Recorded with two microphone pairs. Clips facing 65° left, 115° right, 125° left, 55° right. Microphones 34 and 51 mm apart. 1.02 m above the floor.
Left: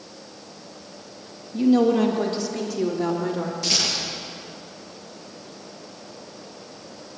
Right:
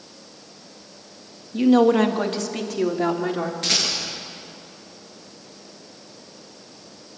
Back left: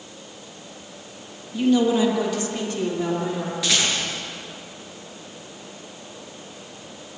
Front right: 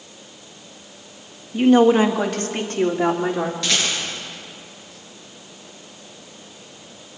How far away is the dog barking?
No dog barking in this recording.